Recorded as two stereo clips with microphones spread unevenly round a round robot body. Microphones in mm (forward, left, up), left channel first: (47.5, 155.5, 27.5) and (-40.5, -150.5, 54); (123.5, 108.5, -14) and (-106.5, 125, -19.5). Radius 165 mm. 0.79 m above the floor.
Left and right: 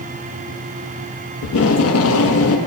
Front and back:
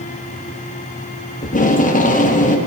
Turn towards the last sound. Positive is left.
turn(degrees=45)